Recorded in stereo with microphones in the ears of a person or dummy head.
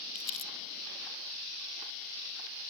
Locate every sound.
0.1 s crumpling: 35° left (ahead or behind)